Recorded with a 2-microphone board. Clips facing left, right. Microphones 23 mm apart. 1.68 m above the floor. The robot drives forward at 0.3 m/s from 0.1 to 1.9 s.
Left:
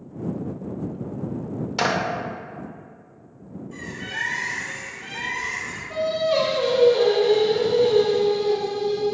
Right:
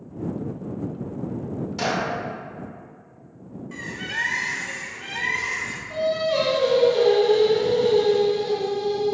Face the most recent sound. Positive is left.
turn(degrees=5)  # may be behind; listen again after turning